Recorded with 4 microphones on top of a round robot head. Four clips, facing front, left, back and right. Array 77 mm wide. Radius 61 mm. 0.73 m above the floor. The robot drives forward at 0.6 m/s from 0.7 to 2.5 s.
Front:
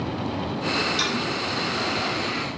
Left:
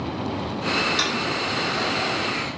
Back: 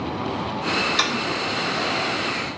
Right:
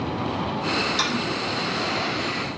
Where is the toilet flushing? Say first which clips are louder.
Left 1 dB, back 2 dB; straight behind, 3 m.